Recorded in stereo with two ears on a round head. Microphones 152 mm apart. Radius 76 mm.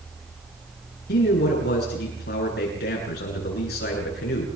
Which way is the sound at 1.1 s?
70° left (ahead or behind).